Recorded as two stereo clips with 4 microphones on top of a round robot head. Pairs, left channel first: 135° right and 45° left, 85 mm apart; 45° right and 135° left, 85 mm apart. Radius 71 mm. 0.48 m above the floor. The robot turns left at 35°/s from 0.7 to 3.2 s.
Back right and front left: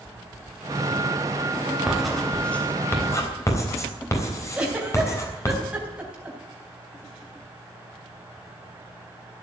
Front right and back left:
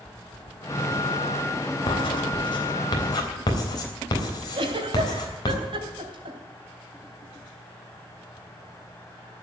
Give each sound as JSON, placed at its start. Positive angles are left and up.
{"t": 1.9, "sound": "writing", "azimuth_deg": -35, "distance_m": 3.5}
{"t": 4.5, "sound": "a giggle", "azimuth_deg": 120, "distance_m": 3.5}